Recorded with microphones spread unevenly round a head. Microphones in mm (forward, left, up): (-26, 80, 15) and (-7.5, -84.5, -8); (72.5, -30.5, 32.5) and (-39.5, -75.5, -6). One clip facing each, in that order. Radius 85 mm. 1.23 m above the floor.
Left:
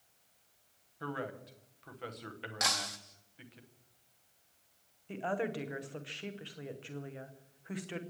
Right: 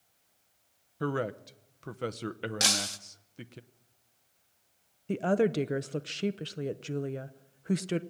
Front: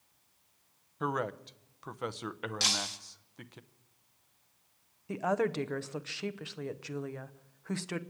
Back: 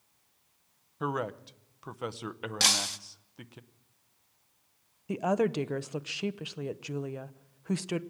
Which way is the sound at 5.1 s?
100° right.